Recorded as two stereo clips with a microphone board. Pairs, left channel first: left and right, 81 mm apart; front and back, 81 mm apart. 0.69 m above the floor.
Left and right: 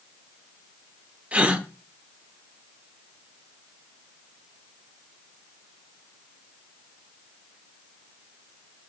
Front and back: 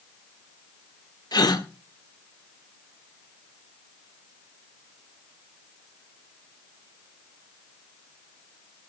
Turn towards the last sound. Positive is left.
turn(degrees=-15)